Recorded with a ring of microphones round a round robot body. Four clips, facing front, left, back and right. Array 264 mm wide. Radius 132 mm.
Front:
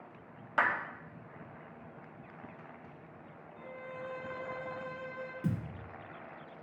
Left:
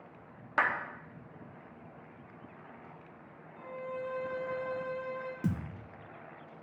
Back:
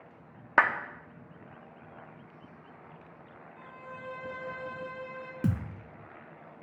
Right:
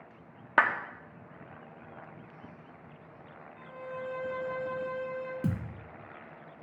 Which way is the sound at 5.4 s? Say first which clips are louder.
Left 2 dB, back 5 dB; 170° right.